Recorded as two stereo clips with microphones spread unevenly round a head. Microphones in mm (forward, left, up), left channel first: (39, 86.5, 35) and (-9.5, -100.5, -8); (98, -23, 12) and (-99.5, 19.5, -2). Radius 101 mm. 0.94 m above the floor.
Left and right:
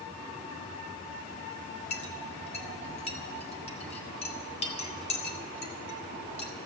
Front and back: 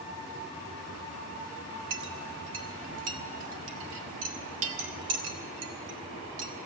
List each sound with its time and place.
1.9 s a clink: 140° left, 1.6 m